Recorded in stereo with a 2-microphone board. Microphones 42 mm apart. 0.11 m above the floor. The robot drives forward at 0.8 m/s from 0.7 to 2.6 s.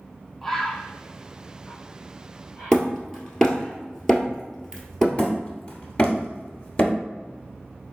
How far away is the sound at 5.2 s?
About 1.5 m.